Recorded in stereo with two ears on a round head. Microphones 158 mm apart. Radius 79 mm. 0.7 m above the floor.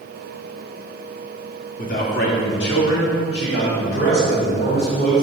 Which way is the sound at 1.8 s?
45° left (ahead or behind).